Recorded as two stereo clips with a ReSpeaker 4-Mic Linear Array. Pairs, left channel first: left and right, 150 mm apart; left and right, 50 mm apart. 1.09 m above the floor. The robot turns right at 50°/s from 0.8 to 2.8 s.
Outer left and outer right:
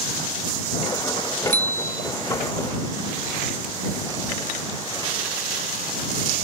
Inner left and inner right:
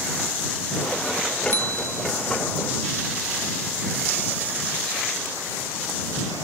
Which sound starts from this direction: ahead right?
A bicycle bell, at 1.5 s.